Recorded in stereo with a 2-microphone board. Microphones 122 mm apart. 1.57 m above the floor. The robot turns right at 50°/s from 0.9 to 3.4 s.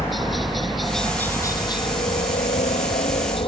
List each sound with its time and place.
0.0 s a helicopter: straight ahead; by 3.5 s 125° left